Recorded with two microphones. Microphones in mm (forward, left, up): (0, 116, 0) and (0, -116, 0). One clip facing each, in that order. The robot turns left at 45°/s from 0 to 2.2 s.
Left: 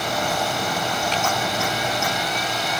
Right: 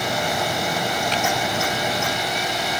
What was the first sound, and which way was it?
Only background noise.